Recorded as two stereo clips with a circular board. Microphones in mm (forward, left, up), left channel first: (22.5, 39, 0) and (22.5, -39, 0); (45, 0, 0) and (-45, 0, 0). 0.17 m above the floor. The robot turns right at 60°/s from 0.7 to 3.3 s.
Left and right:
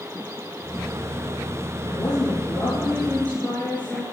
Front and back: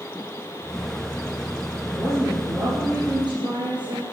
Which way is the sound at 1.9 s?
70° left.